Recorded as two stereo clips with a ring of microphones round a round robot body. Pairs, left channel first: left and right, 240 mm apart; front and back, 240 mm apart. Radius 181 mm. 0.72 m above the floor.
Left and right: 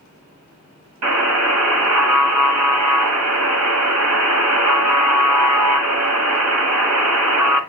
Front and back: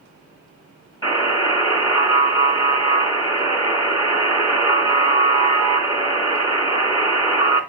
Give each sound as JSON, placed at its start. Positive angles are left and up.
{"t": 1.0, "sound": "a buzzer", "azimuth_deg": -80, "distance_m": 2.5}